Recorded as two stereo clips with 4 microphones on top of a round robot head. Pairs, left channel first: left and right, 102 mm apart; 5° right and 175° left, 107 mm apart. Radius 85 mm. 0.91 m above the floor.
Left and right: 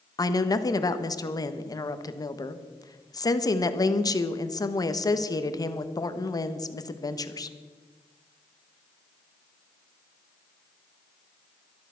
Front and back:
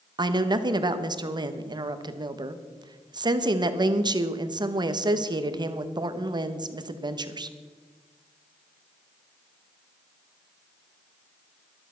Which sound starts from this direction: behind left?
A woman speaking, at 0.2 s.